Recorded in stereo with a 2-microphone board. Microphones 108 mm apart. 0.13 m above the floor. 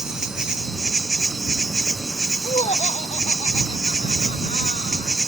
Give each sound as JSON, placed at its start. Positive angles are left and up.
{"t": 0.0, "sound": "an insect", "side_deg": -5}
{"t": 2.4, "sound": "laughter", "side_deg": 80}